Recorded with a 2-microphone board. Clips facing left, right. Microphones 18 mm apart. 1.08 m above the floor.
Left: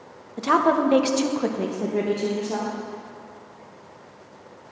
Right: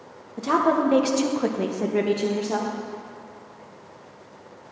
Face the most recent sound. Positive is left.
turn(degrees=-55)  # may be behind; listen again after turning